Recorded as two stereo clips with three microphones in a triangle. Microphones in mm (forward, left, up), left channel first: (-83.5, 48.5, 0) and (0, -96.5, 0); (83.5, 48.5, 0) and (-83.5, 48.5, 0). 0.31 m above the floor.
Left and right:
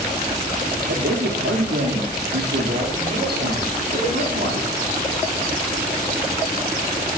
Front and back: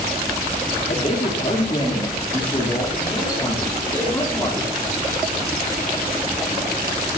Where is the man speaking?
50° right, 6 m; by 4.7 s 75° right, 9.5 m.